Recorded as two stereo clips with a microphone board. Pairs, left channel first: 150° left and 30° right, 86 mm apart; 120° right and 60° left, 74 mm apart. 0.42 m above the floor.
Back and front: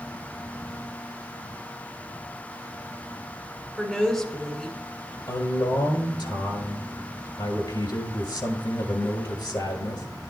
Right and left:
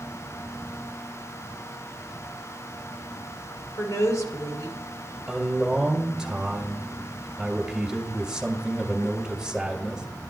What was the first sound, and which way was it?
A woman speaking, 125° right.